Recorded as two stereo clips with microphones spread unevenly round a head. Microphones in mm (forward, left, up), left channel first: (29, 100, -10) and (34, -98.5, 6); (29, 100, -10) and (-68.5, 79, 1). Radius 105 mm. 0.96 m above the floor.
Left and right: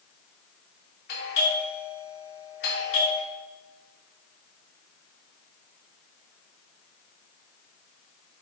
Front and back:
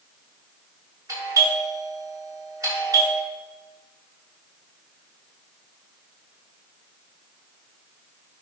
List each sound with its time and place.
1.1 s a doorbell: 135° left, 3.5 m